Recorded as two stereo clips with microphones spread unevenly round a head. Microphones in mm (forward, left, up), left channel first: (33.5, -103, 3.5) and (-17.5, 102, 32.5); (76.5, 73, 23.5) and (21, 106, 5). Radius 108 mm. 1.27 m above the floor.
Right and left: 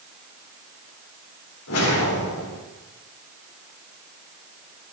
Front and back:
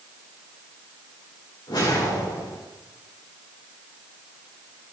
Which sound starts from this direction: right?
A whoosh, at 1.7 s.